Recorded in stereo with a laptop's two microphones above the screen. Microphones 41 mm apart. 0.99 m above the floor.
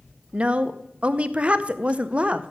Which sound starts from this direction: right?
A woman speaking, at 0.3 s.